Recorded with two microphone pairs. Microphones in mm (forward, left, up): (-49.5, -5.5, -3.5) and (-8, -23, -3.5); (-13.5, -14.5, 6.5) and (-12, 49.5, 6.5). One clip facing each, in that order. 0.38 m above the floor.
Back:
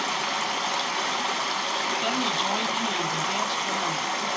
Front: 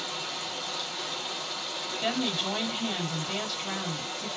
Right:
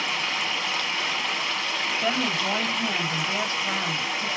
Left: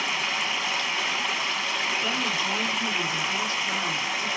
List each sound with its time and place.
0.0 s running water: 175° left, 0.8 m
2.0 s a woman speaking: 125° right, 2.5 m